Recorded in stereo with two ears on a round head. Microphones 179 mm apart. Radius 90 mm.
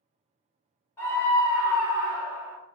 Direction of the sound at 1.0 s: 15° left (ahead or behind).